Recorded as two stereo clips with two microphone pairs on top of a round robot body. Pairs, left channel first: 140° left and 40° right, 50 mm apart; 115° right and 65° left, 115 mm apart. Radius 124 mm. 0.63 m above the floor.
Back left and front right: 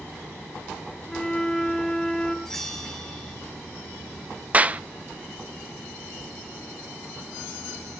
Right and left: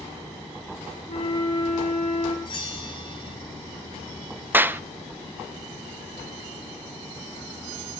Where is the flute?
140° right, 1.9 m.